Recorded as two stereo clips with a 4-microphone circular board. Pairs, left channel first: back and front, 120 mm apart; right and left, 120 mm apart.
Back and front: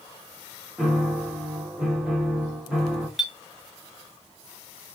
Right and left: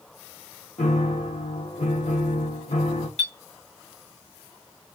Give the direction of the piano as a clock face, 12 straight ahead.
3 o'clock.